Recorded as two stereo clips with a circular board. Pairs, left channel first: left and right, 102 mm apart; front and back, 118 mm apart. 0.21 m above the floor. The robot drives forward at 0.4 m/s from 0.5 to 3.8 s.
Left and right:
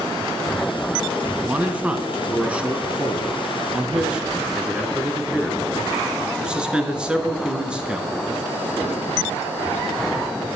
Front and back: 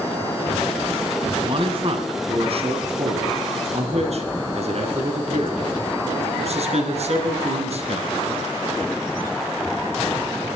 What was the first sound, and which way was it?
A man speaking, 160° right.